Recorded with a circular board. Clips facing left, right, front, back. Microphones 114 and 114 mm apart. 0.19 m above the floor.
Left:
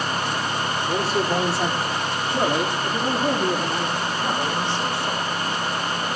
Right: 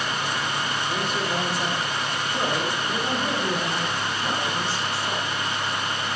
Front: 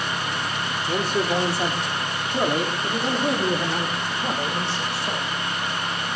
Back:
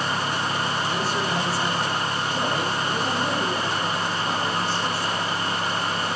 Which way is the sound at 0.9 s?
35° left.